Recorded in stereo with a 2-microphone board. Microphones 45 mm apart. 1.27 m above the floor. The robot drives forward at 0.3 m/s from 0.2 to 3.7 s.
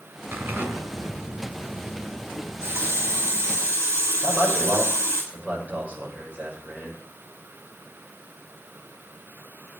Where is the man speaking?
30° right (ahead or behind), 6.5 m.